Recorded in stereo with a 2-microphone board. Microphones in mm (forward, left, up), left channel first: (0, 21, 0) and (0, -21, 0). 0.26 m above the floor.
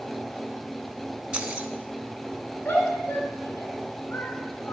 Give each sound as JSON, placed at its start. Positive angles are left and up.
{"t": 1.3, "sound": "keys jangling", "side_deg": -25, "distance_m": 1.3}
{"t": 2.6, "sound": "a shout", "side_deg": 70, "distance_m": 2.5}